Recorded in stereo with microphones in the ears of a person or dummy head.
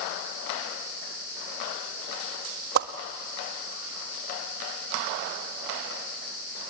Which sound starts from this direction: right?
A whoosh, at 2.8 s.